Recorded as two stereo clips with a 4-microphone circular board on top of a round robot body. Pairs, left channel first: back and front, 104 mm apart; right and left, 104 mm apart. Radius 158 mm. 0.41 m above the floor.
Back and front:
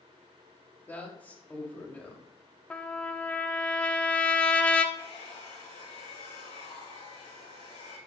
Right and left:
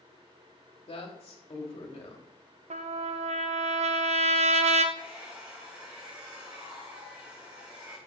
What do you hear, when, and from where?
0.9 s a woman speaking: 105° right, 2.5 m
2.7 s a trumpet: 100° left, 0.6 m
5.0 s a hair dryer: 170° left, 5.5 m